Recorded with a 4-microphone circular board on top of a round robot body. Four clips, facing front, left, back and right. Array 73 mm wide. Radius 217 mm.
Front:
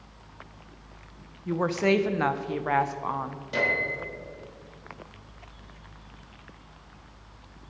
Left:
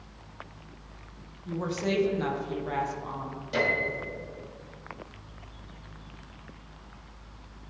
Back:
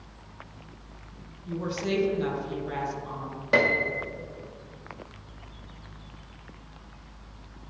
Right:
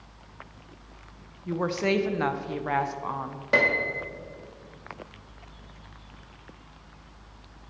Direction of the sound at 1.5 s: 30° right.